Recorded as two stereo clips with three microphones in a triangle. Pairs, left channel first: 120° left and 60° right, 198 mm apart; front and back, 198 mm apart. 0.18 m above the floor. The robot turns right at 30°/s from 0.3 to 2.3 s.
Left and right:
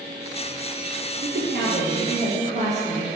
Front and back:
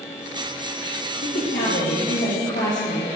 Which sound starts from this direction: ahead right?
A woman speaking, at 1.2 s.